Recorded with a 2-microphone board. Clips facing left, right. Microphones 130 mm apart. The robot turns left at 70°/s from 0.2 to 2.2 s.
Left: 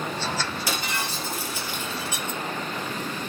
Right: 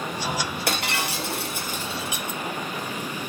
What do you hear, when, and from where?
0.7 s breaking glass: 60° right, 3 m; by 2.4 s 170° right, 3 m